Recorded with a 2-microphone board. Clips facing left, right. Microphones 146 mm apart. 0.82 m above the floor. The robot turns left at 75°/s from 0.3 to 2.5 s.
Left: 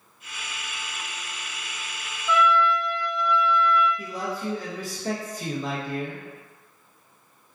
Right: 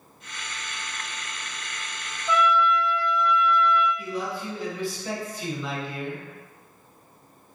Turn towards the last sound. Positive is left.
turn(degrees=45)  # may be behind; listen again after turning